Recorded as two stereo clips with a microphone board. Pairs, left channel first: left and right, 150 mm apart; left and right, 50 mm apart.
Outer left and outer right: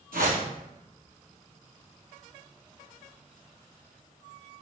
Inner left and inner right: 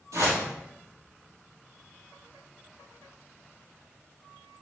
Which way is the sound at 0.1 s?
85° right.